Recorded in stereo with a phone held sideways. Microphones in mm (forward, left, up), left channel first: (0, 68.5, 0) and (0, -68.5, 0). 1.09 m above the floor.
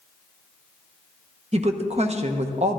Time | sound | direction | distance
1.5 | a woman speaking | 55° right (ahead or behind) | 0.9 m